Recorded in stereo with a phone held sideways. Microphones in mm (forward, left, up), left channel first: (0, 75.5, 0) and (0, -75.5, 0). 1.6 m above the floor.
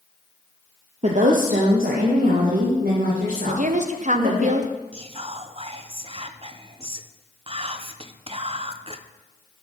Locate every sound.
1.0 s a woman speaking: 45° right (ahead or behind), 0.7 m; by 4.5 s 85° right, 3.5 m
3.5 s a woman speaking: 55° right (ahead or behind), 0.8 m
4.9 s whispering: 40° right (ahead or behind), 0.6 m